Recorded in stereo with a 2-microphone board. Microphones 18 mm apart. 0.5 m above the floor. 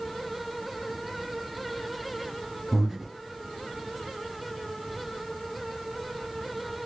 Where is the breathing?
20° right (ahead or behind), 1.0 m.